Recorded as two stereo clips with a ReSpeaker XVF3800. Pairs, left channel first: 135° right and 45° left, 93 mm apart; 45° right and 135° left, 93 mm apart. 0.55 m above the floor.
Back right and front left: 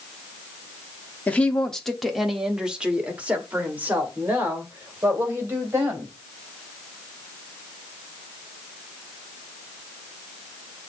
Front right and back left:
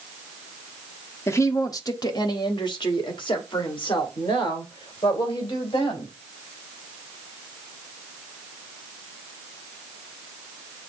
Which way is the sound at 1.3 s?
75° right.